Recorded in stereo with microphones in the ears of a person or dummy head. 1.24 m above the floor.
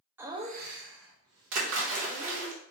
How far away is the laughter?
About 0.5 m.